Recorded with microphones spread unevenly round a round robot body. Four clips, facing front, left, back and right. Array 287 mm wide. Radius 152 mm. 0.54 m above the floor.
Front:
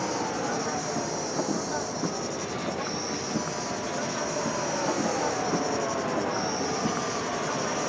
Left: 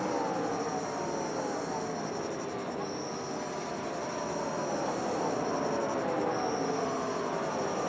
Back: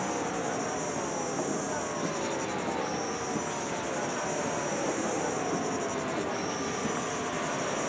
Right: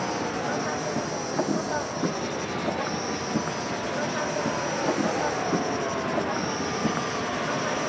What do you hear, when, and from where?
0.0 s an insect: 70° right